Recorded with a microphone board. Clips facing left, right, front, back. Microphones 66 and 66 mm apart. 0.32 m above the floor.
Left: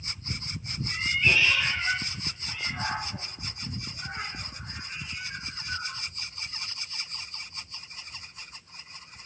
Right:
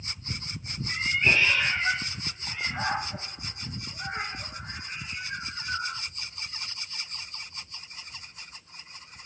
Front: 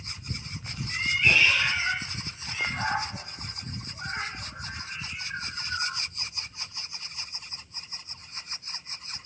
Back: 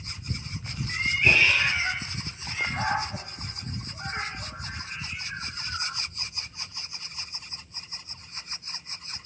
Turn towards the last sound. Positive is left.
turn(degrees=-140)